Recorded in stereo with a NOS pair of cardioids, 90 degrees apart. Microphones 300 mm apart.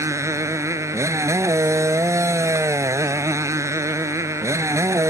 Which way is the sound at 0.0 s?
10° right.